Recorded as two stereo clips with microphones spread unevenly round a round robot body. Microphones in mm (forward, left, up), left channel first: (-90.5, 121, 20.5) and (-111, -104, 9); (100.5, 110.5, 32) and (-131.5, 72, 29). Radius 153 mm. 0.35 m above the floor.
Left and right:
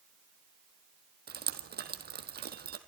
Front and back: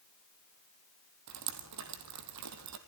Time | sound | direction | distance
1.3 | dripping | 140° right | 1.9 m